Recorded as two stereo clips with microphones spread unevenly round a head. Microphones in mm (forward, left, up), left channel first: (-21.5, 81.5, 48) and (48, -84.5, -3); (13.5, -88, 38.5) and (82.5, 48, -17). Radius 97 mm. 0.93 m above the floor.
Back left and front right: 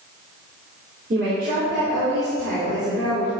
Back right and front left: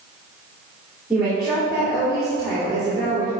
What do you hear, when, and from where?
1.1 s a woman speaking: 20° right, 2.5 m